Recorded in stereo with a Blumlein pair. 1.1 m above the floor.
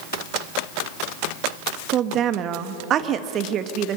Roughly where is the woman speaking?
Ahead right.